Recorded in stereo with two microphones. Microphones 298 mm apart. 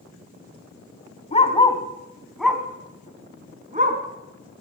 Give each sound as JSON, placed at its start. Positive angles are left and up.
{"t": 1.3, "sound": "a dog barking", "side_deg": 20, "distance_m": 3.0}